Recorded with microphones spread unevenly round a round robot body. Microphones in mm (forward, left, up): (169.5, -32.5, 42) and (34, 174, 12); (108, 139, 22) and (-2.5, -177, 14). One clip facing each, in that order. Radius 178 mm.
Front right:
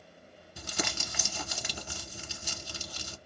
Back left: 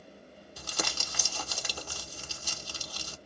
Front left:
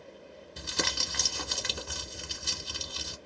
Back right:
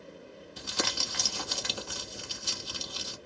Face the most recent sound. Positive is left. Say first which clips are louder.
# front right 2 dB, even
turn(degrees=15)